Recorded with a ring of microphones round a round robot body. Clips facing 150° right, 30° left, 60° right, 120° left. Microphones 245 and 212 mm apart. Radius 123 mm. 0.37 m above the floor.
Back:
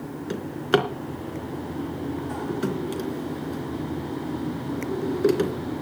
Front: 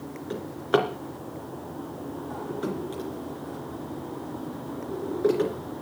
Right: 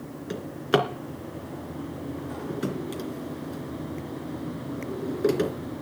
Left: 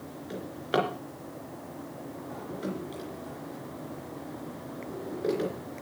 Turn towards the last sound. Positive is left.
turn(degrees=-105)